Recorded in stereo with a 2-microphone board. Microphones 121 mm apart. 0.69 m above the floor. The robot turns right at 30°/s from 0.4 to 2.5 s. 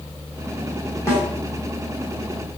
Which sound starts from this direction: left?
A snare drum, at 1.1 s.